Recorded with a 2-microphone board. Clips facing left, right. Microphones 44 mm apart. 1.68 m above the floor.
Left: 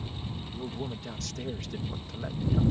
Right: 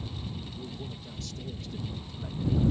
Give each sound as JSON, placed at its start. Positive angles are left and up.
{"t": 0.5, "sound": "a man speaking", "side_deg": 75}